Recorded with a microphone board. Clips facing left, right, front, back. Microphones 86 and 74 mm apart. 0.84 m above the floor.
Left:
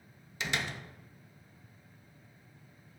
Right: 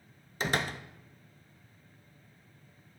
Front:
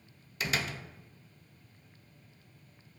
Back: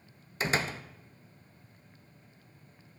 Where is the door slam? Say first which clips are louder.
Right 4 dB, back 3 dB; 130° right, 0.5 m.